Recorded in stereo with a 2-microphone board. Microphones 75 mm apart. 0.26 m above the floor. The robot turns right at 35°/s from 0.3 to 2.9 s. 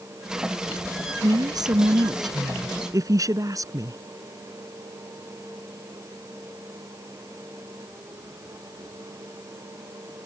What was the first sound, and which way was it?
A woman speaking, 115° right.